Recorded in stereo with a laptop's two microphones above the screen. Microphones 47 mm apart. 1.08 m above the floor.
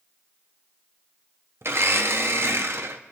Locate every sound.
1.6 s a blender: 65° right (ahead or behind), 0.7 m